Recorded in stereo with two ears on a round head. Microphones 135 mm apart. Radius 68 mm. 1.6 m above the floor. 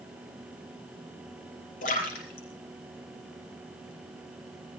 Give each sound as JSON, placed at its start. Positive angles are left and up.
{"t": 1.8, "sound": "a splash", "side_deg": 60, "distance_m": 6.0}